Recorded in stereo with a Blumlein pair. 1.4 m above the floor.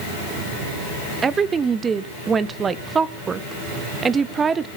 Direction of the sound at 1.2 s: 20° right.